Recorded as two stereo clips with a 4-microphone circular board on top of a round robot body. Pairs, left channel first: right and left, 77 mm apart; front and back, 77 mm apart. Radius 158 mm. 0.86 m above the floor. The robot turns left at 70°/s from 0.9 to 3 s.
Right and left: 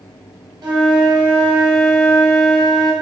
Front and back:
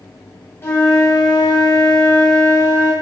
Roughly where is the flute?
Ahead left.